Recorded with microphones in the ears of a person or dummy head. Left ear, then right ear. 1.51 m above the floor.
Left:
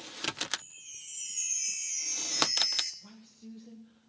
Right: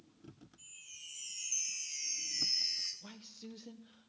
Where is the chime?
30° left (ahead or behind), 1.3 m.